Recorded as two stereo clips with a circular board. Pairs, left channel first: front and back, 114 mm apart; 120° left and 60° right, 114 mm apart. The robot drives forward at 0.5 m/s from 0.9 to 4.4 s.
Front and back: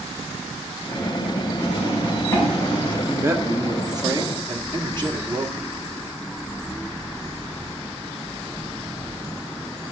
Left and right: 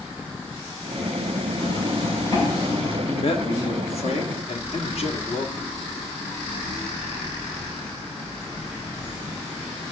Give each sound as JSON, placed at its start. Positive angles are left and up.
{"t": 1.6, "sound": "a zipper", "azimuth_deg": 65, "distance_m": 7.5}
{"t": 3.1, "sound": "a man speaking", "azimuth_deg": 110, "distance_m": 1.3}